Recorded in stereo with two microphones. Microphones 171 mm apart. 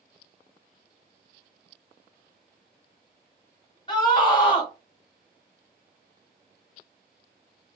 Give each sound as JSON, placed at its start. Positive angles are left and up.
{"t": 3.9, "sound": "a scream", "side_deg": 25, "distance_m": 1.5}